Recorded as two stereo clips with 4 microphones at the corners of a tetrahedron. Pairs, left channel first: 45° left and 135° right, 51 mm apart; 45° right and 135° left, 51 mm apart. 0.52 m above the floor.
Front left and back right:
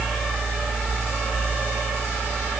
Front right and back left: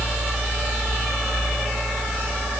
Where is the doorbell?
I don't hear a doorbell.